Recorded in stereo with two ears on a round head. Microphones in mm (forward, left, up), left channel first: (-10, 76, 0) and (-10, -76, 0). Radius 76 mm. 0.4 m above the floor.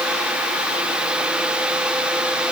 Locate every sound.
Only background noise.